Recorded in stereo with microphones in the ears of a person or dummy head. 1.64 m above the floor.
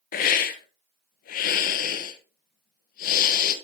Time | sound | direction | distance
0.1 | a hiss | 50° left (ahead or behind) | 1.3 m